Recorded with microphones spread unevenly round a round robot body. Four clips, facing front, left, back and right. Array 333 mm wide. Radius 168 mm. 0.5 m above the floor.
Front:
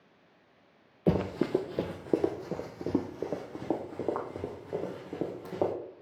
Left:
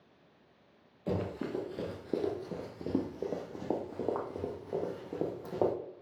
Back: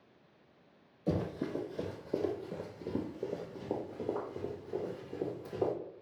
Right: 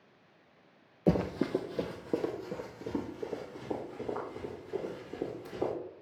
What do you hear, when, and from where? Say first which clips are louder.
1.1 s running footsteps: right 6 dB, front 7 dB; 30° right, 0.9 m; by 5.7 s 45° left, 2.5 m